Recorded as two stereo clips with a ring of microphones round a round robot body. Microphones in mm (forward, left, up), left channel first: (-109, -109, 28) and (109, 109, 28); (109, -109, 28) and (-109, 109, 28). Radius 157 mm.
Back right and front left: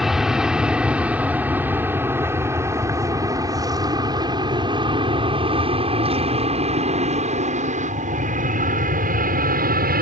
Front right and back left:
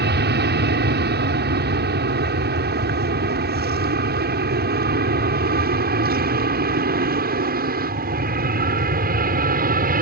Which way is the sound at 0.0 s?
135° left.